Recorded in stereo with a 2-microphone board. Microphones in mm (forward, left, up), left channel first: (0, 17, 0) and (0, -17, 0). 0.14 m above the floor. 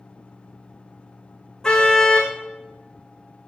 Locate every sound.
1.6 s a car horn: 15° left (ahead or behind), 5 m